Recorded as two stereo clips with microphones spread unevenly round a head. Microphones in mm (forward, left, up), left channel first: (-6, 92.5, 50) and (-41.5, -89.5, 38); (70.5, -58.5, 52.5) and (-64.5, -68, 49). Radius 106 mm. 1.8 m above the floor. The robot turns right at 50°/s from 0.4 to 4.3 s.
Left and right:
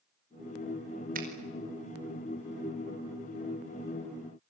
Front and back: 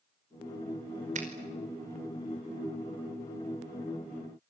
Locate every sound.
1.1 s a finger snap: 145° right, 5 m; by 1.3 s 140° right, 5 m